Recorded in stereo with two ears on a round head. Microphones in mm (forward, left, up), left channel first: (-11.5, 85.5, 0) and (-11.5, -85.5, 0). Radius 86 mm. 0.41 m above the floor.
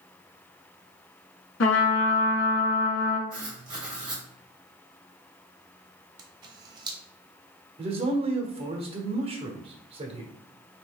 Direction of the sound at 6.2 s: 25° right (ahead or behind).